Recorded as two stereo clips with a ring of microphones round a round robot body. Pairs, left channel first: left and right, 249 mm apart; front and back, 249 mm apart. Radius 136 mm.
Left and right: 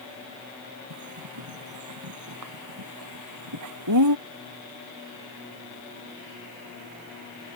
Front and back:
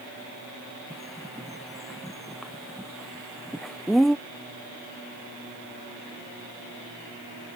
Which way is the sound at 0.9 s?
90° right.